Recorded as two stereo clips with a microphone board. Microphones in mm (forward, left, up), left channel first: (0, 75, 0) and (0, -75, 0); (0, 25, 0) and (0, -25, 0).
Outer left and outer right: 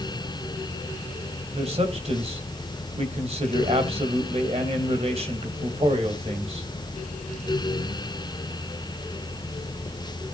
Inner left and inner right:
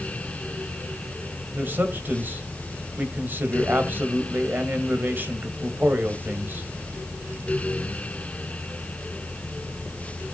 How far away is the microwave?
No microwave in this recording.